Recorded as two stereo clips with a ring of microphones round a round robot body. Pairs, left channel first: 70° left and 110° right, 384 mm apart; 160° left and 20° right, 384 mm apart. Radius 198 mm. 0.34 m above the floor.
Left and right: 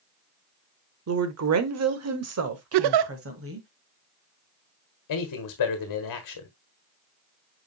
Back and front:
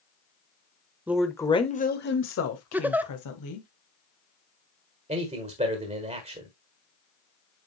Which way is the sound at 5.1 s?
50° left.